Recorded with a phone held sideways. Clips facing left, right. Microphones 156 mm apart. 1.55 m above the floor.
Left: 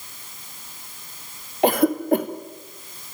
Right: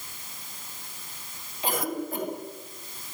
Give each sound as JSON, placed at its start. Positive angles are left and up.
{"t": 1.6, "sound": "a cough", "side_deg": 65, "distance_m": 2.5}